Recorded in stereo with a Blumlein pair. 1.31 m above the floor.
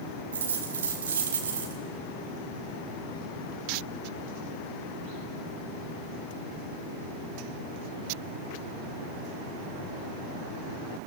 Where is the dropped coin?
70° right, 2 m.